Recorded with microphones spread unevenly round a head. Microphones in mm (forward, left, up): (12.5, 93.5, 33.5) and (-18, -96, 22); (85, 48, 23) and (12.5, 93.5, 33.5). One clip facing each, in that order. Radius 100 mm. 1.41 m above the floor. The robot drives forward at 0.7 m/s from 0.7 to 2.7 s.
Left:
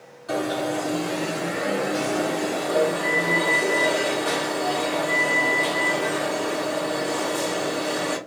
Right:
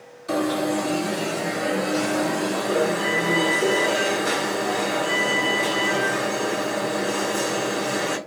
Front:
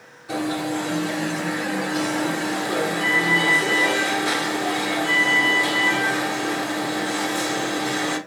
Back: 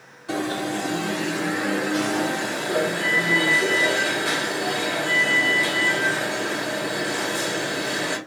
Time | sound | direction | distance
0.3 | an alarm | 155° right | 3 m